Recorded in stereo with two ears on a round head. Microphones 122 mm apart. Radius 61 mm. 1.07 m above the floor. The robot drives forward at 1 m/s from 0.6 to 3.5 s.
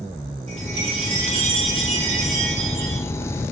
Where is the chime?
45° right (ahead or behind), 7 m; by 3.0 s 65° right (ahead or behind), 5.5 m.